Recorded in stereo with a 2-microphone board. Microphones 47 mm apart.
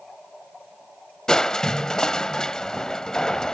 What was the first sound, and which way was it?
Crushing, 15° left (ahead or behind).